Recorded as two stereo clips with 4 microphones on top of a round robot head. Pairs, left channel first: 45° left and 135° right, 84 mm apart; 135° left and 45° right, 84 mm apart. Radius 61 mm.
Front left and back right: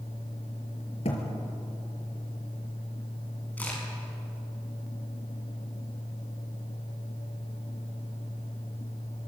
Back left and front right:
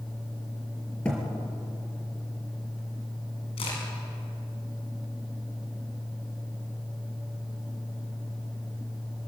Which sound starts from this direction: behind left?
A crack, at 3.6 s.